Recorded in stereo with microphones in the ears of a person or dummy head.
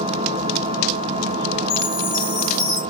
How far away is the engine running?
About 1.1 m.